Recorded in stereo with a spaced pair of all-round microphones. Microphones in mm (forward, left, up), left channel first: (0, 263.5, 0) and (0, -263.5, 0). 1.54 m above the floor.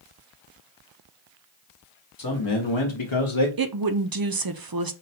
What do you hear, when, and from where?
2.2 s a man speaking: 40° left (ahead or behind), 0.9 m; by 3.5 s 65° left (ahead or behind), 0.8 m
3.6 s a woman speaking: 45° right (ahead or behind), 0.5 m